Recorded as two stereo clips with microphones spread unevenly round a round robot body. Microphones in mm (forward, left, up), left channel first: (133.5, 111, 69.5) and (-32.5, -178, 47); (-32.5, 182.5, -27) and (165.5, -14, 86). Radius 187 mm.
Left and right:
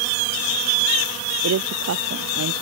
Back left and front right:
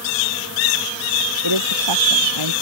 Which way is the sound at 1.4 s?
70° right.